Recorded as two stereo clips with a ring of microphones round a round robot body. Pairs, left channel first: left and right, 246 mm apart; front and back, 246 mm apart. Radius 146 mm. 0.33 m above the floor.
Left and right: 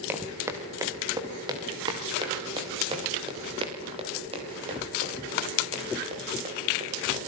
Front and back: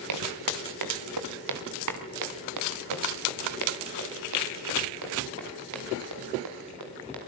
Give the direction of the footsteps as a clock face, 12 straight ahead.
6 o'clock.